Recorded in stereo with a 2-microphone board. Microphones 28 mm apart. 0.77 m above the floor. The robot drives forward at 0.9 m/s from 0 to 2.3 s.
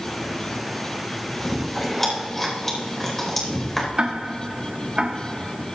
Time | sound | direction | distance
1.4 | chewing | 15° left (ahead or behind) | 3.5 m
4.0 | ticking | 35° right (ahead or behind) | 1.5 m